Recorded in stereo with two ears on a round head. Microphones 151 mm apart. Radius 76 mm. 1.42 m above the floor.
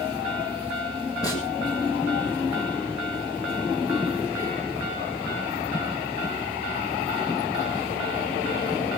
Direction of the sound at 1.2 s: 20° left (ahead or behind).